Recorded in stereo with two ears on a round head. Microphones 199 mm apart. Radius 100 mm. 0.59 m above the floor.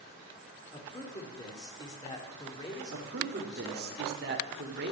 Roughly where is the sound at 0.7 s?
Centre.